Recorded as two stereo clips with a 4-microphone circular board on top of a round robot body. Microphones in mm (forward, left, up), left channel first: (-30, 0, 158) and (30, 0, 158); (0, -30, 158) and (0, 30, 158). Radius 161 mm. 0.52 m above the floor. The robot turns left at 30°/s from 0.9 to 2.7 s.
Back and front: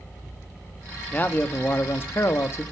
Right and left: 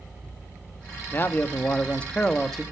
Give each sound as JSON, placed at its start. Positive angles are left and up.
{"t": 1.1, "sound": "a man speaking", "azimuth_deg": -125, "distance_m": 1.4}